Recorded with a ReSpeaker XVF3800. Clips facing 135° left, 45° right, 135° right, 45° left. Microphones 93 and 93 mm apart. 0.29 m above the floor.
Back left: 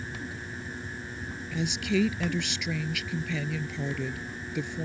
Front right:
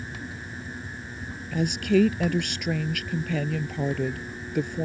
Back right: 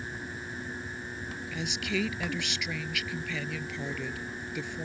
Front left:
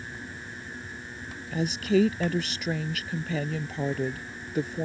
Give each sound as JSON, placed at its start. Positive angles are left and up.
{"t": 1.5, "sound": "a woman speaking", "azimuth_deg": -5}